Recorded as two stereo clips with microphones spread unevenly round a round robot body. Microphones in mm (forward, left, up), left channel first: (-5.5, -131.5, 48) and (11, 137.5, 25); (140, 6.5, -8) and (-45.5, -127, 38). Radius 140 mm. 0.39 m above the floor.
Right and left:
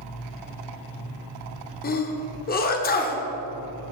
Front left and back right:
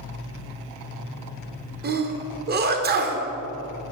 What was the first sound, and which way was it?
A sneeze, 120° right.